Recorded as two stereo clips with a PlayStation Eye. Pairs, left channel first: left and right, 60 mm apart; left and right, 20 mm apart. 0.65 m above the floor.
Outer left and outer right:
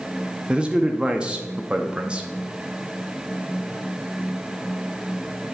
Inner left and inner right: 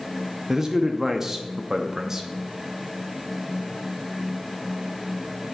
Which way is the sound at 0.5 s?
15° right (ahead or behind).